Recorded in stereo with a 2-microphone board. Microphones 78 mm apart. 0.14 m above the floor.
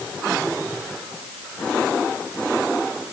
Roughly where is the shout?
I don't hear a shout.